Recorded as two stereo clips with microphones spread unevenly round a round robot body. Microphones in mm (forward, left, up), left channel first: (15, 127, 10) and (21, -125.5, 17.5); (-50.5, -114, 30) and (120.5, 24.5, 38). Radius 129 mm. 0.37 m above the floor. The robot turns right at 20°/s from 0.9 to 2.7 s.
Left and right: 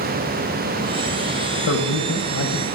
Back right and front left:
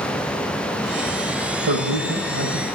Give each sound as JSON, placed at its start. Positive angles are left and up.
{"t": 1.7, "sound": "a man speaking", "azimuth_deg": 60, "distance_m": 1.5}